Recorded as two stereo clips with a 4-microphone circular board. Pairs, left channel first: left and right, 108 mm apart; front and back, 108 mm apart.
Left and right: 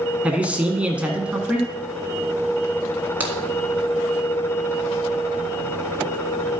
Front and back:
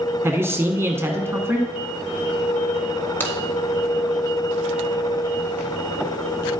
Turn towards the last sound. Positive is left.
turn(degrees=-45)